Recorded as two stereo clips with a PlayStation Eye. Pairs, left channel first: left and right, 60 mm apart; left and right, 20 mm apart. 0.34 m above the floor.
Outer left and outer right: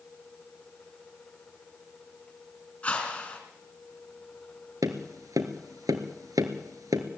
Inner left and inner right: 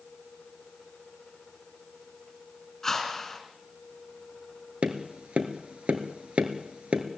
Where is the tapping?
80° right, 2 m.